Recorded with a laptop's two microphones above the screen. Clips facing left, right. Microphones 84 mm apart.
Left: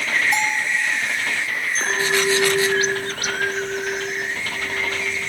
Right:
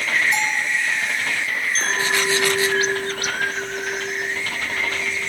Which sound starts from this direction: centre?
A clink, at 1.8 s.